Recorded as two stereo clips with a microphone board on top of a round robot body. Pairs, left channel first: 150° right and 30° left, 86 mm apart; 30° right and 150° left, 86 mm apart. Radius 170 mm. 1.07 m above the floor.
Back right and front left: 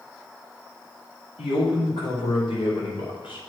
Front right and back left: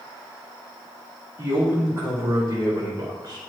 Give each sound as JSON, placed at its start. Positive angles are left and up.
{"t": 1.4, "sound": "a man speaking", "azimuth_deg": -145, "distance_m": 3.0}